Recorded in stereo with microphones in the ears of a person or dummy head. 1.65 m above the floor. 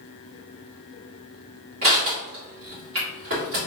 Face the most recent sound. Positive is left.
turn(degrees=-50)  # may be behind; listen again after turning